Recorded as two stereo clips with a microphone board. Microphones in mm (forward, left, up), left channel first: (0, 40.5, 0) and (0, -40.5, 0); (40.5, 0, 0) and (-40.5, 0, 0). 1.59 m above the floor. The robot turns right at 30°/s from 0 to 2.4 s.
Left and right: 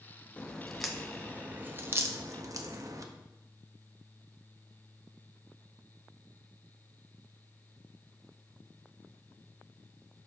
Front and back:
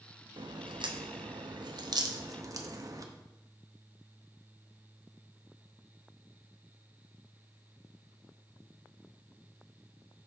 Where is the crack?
165° left, 0.6 m; by 3.0 s 135° right, 0.6 m.